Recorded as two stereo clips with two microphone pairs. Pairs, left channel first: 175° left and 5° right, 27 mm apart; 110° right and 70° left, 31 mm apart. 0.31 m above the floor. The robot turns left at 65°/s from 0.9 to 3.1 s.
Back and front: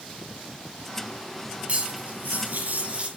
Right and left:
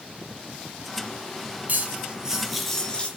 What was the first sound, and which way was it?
Cutlery clinking, 35° left.